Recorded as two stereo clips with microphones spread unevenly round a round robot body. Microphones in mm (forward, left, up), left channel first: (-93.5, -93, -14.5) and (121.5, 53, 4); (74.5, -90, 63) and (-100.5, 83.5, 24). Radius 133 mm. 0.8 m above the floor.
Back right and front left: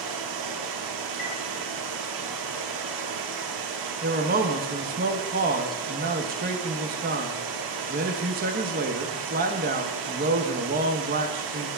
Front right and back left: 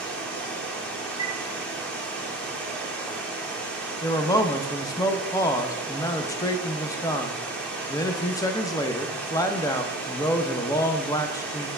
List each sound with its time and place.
0.0 s running water: 40° left, 1.0 m
1.2 s a chime: 155° right, 2 m
4.0 s a man speaking: 35° left, 0.8 m